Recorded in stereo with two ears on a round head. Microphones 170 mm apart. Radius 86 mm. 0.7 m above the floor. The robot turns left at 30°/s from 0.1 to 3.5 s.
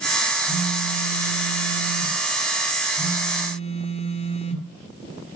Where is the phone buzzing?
120° right, 3 m; by 4.7 s 145° left, 3 m.